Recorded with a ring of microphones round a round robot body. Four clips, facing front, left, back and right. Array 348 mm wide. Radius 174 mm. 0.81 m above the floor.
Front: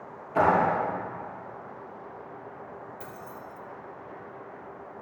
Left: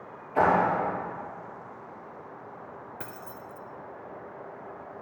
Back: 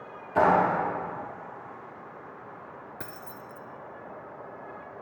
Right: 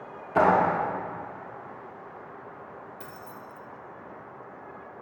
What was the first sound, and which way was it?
A clap, 95° right.